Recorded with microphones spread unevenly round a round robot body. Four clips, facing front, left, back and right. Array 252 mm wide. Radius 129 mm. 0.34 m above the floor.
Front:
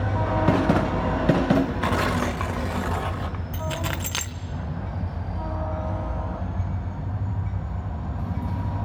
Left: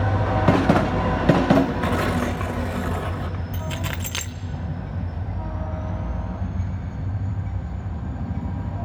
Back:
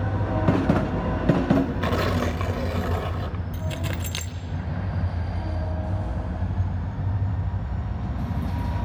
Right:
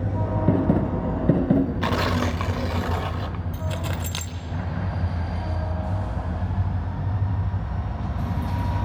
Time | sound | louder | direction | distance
1.8 | tearing paper | left 1 dB, front 1 dB | 160° left | 1.0 m
3.5 | keys jangling | right 1 dB, front 4 dB | 130° left | 0.6 m